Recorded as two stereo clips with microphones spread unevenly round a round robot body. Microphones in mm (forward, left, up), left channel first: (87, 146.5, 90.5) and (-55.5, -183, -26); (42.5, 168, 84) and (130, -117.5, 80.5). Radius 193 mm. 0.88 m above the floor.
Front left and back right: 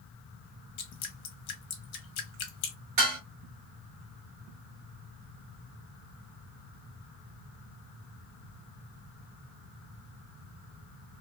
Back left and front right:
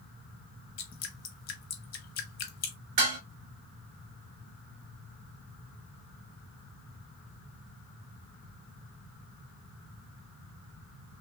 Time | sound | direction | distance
0.8 | dripping | 75° left | 1.0 m
3.0 | dishes clattering | 75° right | 2.0 m